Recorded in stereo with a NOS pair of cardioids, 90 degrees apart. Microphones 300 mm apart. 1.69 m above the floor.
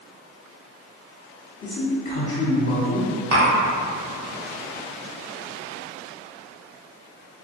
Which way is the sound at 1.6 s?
40° left.